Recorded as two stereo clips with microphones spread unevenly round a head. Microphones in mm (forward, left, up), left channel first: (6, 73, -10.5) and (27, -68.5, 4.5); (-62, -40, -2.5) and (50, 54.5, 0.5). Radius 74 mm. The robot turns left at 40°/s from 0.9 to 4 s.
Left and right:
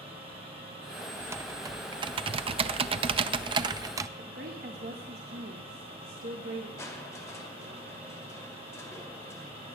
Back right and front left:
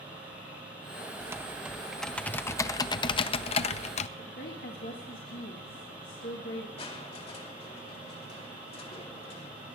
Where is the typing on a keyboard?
20° right, 0.5 m; by 4.1 s 130° right, 0.5 m.